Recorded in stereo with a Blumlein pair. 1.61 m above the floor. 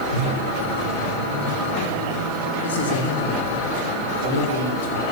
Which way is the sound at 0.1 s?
65° left.